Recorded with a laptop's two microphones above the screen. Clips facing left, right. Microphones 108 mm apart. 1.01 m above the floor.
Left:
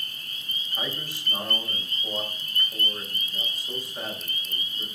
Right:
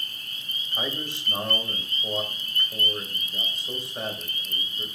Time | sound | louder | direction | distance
0.7 | a man speaking | right 3 dB | 25° right (ahead or behind) | 6 m